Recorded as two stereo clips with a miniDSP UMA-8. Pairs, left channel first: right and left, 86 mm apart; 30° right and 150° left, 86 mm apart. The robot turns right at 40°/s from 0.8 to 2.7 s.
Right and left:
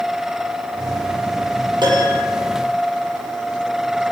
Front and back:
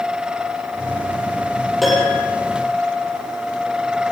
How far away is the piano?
About 9 m.